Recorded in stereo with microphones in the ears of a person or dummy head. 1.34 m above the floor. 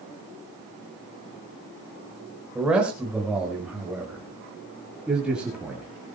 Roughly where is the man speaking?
Centre.